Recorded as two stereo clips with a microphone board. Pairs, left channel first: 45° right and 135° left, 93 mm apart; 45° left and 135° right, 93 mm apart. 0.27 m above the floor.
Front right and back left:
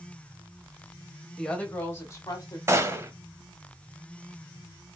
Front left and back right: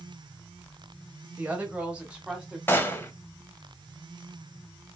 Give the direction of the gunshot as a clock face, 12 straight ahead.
9 o'clock.